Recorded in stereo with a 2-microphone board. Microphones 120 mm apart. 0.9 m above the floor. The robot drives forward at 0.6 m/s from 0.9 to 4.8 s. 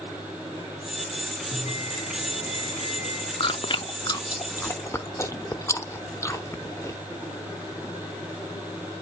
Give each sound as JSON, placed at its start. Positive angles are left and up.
{"t": 1.5, "sound": "a bell", "side_deg": 55, "distance_m": 1.4}
{"t": 3.4, "sound": "chewing", "side_deg": 45, "distance_m": 0.5}